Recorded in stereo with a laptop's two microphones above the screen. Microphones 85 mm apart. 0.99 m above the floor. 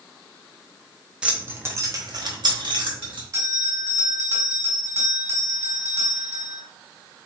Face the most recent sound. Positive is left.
turn(degrees=-40)  # may be behind; listen again after turning